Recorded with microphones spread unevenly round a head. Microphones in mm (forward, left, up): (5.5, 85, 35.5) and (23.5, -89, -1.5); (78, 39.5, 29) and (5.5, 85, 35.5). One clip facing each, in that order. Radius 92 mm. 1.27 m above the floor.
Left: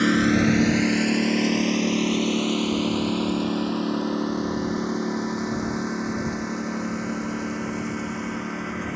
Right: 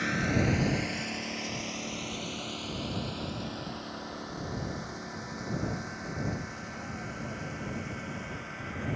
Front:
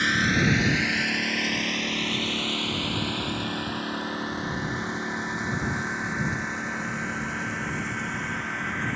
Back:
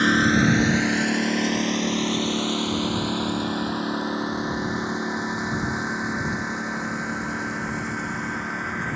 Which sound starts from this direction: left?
A lawn mower, at 0.0 s.